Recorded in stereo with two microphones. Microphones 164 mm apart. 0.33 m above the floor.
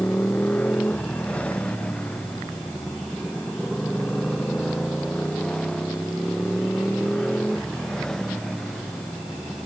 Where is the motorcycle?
10° left (ahead or behind); by 9.7 s 5° left (ahead or behind).